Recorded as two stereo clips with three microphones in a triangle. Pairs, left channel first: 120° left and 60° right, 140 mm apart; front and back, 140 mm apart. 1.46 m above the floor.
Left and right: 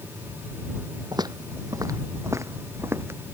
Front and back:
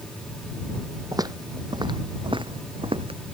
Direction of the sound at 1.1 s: 120° right.